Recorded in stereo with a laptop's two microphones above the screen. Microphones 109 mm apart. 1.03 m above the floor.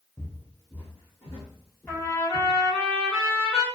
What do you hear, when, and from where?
0.2 s footsteps: 10° left (ahead or behind), 1.5 m; by 2.5 s 40° left (ahead or behind), 2.5 m
1.9 s a trumpet: 20° left (ahead or behind), 1.7 m